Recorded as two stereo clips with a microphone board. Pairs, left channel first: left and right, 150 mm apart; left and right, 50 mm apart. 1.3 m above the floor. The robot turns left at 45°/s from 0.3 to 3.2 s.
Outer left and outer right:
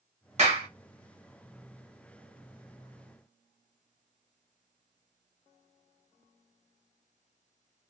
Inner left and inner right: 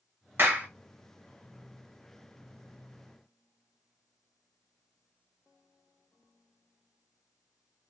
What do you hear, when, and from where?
0.4 s a clap: 50° right (ahead or behind), 0.9 m; by 0.7 s 35° right (ahead or behind), 0.9 m